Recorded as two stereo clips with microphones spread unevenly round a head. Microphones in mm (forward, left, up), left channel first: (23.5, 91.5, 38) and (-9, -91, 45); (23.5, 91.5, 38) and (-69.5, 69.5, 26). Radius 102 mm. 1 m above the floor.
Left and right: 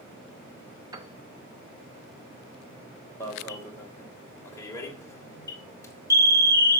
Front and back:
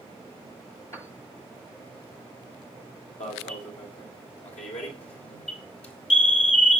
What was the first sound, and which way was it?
A piano, 40° right.